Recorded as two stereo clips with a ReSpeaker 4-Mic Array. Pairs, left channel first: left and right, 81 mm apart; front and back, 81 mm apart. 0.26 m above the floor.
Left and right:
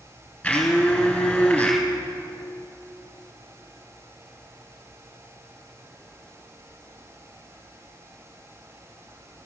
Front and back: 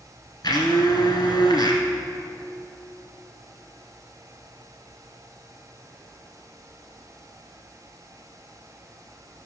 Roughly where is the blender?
Ahead.